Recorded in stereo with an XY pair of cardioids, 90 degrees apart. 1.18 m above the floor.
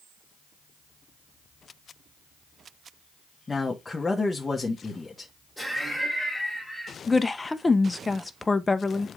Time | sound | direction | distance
3.5 | a man speaking | 25° left | 1.2 m
5.6 | laughter | straight ahead | 2.5 m
7.1 | a woman speaking | 25° left | 0.7 m